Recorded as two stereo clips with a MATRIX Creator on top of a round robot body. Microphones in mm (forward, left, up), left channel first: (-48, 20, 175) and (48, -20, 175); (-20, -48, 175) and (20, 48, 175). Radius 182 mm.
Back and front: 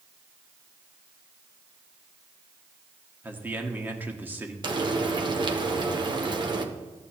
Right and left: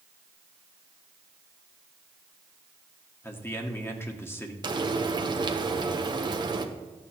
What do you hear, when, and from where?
3.2 s a man speaking: 75° right, 1.4 m
4.6 s frying: 20° left, 1.0 m